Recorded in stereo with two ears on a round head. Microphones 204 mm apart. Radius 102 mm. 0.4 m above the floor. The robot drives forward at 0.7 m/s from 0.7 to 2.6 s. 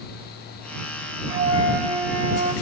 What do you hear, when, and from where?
1.3 s a flute: 20° right (ahead or behind), 1.7 m; by 2.5 s 15° right (ahead or behind), 2.5 m